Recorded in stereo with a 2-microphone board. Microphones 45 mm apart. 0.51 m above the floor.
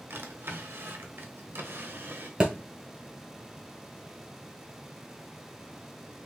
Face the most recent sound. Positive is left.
turn(degrees=-20)  # may be behind; listen again after turning